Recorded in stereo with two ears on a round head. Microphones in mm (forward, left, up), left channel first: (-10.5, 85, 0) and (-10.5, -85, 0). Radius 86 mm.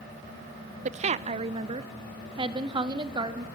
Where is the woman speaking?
40° right (ahead or behind), 0.7 m; by 3.5 s 25° right (ahead or behind), 2.5 m.